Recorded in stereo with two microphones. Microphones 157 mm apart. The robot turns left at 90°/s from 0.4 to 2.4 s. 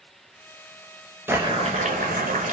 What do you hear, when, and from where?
1.3 s boiling: 15° right, 1.1 m; by 2.5 s 115° right, 1.1 m